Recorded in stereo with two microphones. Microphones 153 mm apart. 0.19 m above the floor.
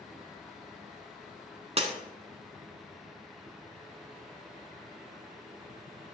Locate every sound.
1.8 s breaking glass: 45° right (ahead or behind), 0.9 m